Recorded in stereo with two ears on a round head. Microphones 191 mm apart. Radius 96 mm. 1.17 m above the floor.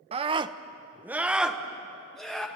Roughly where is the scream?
Right.